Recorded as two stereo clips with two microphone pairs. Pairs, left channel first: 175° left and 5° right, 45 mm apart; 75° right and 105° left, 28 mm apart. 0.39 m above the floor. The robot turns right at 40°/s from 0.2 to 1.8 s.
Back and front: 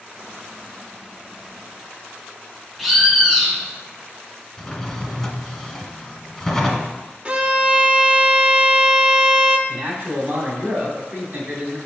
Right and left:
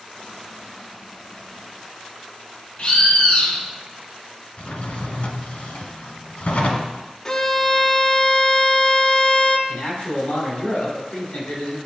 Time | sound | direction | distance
2.8 | a bird | 90° right | 0.9 m
4.6 | a drawer | 100° right | 1.0 m
7.2 | a violin | 30° right | 0.5 m
9.7 | a man speaking | 50° right | 2.5 m